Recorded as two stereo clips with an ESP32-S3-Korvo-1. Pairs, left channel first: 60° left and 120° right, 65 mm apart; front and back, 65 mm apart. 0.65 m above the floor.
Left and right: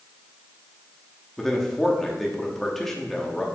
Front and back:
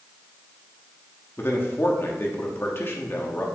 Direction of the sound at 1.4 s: 25° right.